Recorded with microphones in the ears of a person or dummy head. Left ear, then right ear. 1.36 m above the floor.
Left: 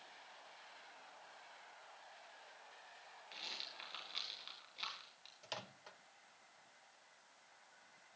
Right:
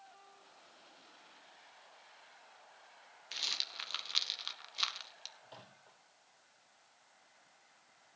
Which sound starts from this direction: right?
A rattle, at 3.3 s.